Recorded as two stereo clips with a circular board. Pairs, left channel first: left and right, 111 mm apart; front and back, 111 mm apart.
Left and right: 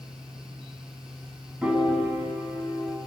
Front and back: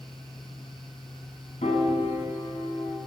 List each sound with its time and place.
1.6 s a piano: 10° right, 5.5 m